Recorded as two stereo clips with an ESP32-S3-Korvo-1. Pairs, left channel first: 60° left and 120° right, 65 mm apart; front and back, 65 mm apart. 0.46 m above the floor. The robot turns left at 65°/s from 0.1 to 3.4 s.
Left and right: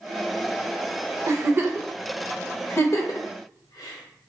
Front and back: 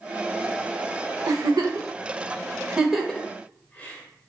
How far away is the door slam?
I don't hear a door slam.